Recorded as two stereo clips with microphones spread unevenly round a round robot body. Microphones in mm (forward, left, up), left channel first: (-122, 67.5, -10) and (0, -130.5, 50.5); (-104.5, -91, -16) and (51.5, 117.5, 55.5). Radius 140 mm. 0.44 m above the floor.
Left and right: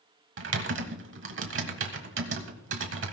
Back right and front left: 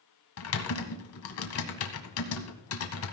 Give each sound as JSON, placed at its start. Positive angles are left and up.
{"t": 0.4, "sound": "typing on a keyboard", "azimuth_deg": -100, "distance_m": 1.8}